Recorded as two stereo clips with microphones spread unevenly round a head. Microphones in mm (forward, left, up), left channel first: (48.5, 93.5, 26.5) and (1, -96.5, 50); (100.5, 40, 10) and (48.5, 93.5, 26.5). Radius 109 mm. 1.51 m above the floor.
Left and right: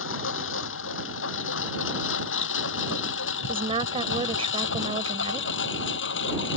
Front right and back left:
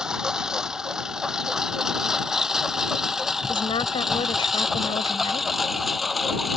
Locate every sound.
0.0 s a lawn mower: 55° left; by 6.6 s 45° left
3.5 s a woman speaking: 45° right